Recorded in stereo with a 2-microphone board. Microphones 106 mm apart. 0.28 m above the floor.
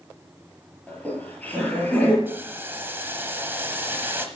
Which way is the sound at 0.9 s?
15° left (ahead or behind).